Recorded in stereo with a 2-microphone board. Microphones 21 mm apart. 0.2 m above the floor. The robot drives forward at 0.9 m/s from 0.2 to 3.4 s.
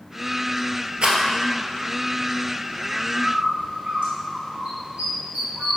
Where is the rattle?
60° right (ahead or behind), 1.2 m; by 1.2 s 55° right (ahead or behind), 1.3 m.